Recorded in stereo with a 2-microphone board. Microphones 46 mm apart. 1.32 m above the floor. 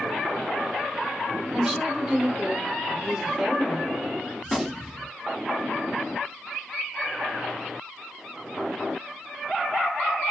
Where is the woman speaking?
5° right (ahead or behind), 1.1 m.